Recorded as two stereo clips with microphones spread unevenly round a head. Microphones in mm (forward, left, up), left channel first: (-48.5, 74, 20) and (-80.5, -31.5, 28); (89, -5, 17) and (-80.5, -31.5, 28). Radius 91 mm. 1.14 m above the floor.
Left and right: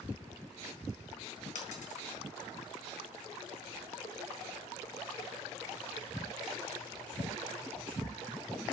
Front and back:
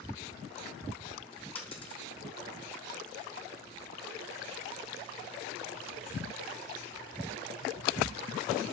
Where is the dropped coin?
70° left, 3.5 m.